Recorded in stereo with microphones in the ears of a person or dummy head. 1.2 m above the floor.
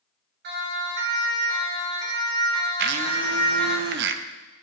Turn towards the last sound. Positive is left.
turn(degrees=-65)  # may be behind; listen again after turning